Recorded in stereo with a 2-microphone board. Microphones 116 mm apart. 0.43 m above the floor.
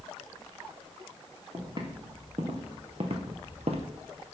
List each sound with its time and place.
1.5 s footsteps: 40° right (ahead or behind), 2.5 m; by 3.9 s 60° right (ahead or behind), 0.9 m